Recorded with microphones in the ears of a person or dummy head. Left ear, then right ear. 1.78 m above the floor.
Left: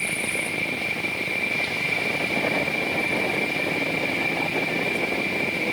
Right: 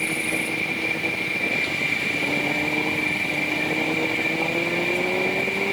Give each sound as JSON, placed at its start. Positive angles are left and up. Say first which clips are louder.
{"t": 0.0, "sound": "an insect", "louder": "right 1 dB", "side_deg": -15}